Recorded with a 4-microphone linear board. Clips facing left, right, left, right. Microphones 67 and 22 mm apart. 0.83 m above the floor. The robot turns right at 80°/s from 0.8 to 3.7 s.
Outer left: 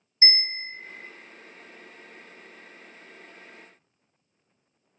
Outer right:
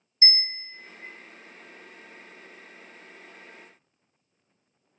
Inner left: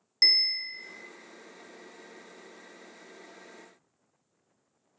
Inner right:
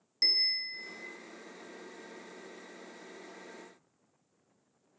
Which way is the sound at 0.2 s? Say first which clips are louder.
Outer left 4 dB, inner left 5 dB; 35° left (ahead or behind).